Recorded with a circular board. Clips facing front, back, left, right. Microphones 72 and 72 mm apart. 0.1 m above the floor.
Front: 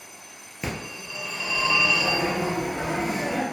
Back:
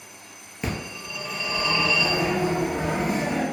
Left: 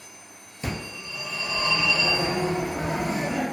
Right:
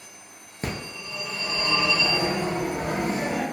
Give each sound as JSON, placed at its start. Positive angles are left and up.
{"t": 0.6, "sound": "a phone ringing", "azimuth_deg": -85, "distance_m": 1.0}